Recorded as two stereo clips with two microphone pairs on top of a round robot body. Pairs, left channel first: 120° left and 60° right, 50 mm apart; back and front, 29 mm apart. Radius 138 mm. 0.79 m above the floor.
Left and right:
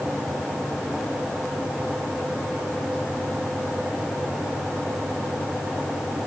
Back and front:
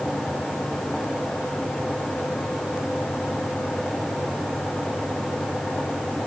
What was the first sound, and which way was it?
Only background noise.